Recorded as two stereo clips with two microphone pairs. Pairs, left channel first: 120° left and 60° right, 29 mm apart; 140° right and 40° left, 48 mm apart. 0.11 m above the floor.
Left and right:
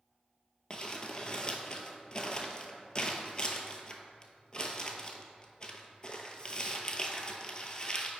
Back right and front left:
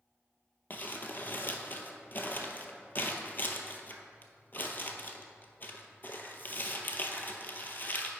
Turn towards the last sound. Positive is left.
turn(degrees=180)